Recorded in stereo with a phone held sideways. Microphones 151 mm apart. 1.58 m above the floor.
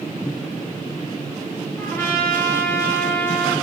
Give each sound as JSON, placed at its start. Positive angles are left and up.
{"t": 1.8, "sound": "a trumpet", "side_deg": 15, "distance_m": 1.2}